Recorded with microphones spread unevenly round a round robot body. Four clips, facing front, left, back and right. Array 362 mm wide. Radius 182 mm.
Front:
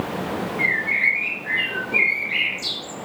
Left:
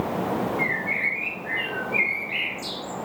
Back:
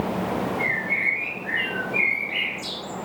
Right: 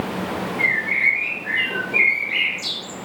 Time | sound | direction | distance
0.6 | a bird | 5° left | 5 m